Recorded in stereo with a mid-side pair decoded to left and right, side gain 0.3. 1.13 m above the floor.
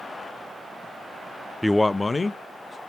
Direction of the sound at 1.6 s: 5° left.